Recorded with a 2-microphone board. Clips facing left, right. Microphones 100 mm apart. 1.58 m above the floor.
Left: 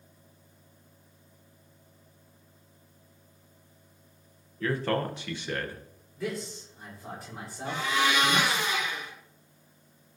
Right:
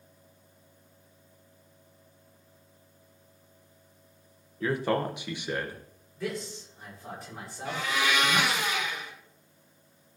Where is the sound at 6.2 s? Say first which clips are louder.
Even; centre (ahead or behind), 6 m.